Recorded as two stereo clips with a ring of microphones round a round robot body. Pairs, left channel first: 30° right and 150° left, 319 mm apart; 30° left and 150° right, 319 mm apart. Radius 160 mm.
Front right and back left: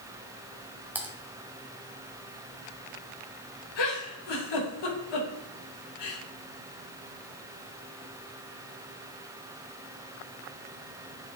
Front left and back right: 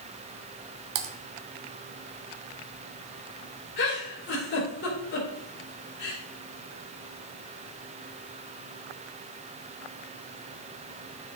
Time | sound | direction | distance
0.9 | typing on a keyboard | 125° right | 0.9 m
3.8 | a giggle | 25° right | 3 m